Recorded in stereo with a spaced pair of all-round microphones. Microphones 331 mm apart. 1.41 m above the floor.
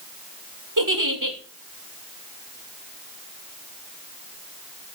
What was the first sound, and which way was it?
A giggle, 75° right (ahead or behind).